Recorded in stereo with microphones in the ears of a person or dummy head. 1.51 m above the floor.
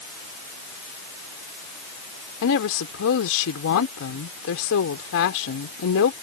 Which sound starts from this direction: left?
A woman speaking, at 2.4 s.